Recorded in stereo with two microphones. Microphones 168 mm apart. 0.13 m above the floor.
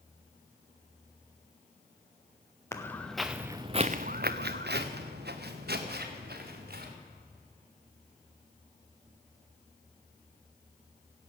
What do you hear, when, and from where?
2.7 s footsteps: 15° left (ahead or behind), 1.4 m; by 6.9 s 65° right (ahead or behind), 3.5 m